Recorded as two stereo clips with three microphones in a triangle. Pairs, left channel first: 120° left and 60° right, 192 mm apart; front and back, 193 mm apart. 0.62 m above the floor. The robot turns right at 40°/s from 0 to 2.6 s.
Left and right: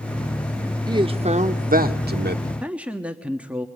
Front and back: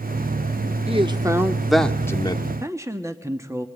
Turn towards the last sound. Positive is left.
turn(degrees=-130)